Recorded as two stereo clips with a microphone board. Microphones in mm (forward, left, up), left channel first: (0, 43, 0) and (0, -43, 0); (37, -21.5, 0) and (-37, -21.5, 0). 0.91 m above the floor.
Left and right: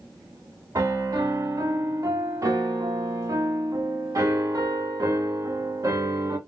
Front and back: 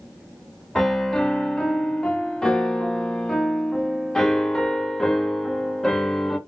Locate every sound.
0.8 s a piano: 75° right, 0.7 m